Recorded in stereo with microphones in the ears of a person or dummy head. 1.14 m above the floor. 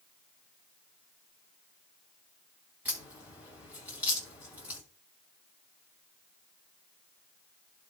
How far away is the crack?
About 2.5 m.